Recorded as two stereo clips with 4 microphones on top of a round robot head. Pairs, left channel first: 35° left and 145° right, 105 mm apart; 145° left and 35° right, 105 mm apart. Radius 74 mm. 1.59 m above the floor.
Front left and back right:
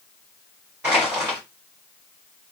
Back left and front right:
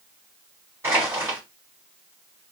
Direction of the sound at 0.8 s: 80° right.